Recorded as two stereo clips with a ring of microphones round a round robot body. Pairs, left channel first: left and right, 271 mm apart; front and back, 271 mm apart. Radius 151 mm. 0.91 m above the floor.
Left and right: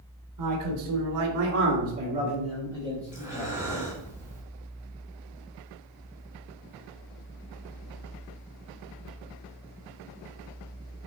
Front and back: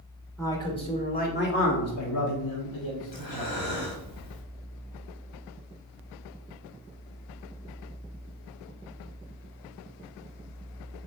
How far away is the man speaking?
About 2.5 m.